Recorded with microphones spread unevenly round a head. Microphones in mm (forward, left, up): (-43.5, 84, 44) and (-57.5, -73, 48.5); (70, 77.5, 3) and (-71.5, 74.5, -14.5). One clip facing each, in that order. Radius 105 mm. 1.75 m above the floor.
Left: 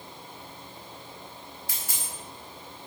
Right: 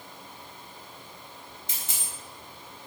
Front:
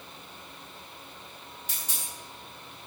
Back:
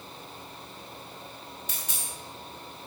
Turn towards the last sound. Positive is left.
turn(degrees=-160)